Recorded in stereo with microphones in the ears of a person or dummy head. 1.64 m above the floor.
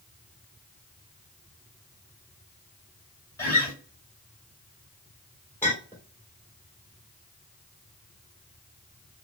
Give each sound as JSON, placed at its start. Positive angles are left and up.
{"t": 3.4, "sound": "a guitar", "side_deg": 15, "distance_m": 2.0}
{"t": 5.6, "sound": "a clink", "side_deg": 10, "distance_m": 2.0}